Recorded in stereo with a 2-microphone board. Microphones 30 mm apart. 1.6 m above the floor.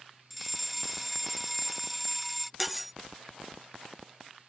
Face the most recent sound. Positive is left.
turn(degrees=-5)  # may be behind; listen again after turning